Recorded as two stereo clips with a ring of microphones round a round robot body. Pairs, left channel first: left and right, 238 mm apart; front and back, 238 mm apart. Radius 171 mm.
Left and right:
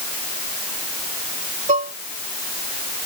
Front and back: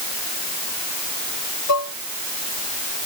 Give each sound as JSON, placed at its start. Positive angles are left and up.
{"t": 1.7, "sound": "dishes clattering", "azimuth_deg": -25}